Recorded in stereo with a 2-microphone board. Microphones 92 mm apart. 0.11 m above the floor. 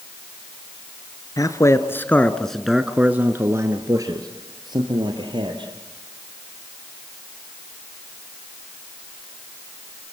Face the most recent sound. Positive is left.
turn(degrees=-60)  # may be behind; listen again after turning